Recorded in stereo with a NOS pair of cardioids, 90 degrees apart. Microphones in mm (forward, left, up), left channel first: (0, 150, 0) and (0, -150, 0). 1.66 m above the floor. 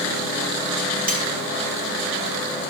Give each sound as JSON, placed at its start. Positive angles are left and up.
{"t": 1.1, "sound": "cutlery clinking", "azimuth_deg": -30, "distance_m": 3.5}